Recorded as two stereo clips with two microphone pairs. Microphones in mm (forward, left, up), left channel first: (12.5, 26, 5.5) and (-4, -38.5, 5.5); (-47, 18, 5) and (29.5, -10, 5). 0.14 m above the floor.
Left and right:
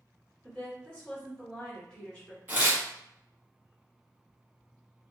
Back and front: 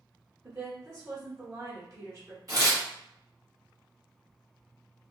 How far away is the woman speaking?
About 1.9 m.